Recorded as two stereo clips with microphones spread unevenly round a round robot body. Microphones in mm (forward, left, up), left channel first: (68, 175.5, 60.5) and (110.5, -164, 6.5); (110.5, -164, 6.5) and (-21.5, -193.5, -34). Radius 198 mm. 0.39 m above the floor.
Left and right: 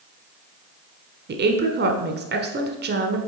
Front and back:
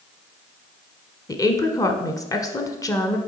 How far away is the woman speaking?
About 1.0 m.